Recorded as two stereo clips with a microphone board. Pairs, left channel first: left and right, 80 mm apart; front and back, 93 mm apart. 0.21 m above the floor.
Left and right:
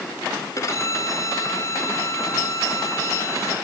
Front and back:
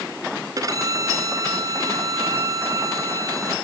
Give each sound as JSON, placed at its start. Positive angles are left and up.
{"t": 0.6, "sound": "a violin", "azimuth_deg": 135, "distance_m": 1.8}